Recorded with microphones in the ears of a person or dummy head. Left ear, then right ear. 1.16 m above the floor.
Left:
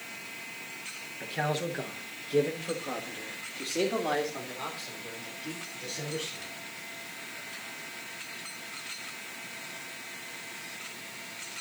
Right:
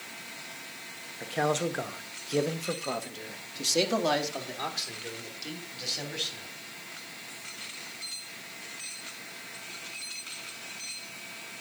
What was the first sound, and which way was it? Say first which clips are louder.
A man speaking: right 3 dB; 20° right (ahead or behind).